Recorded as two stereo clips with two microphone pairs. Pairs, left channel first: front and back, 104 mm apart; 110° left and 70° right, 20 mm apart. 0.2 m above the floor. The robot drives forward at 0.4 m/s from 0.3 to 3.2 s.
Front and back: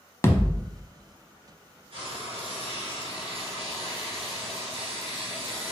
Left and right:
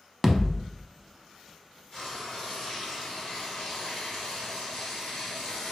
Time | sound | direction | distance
0.2 | a thud | 25° left | 0.6 m
1.9 | frying | 175° left | 1.8 m